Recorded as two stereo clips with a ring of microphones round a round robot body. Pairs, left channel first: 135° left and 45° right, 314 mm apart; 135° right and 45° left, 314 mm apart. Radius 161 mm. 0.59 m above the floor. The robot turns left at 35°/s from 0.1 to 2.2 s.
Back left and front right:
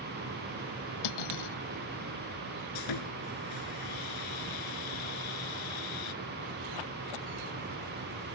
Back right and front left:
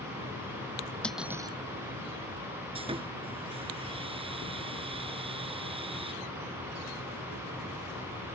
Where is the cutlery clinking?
140° left; by 1.6 s 120° left.